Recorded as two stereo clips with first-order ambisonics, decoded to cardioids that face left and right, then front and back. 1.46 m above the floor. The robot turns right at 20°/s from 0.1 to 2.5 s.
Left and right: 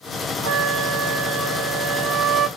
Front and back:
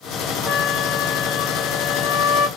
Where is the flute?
70° right, 3 m; by 2.5 s 30° right, 3 m.